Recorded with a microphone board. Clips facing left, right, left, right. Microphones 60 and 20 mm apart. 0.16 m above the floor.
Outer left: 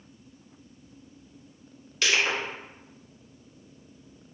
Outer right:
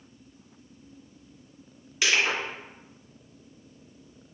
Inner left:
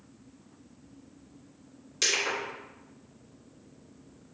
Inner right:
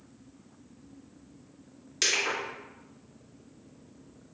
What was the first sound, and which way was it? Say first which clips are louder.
Crushing: even, even; 10° right (ahead or behind).